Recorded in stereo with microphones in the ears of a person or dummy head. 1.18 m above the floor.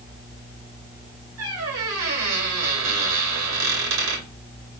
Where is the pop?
No pop in this recording.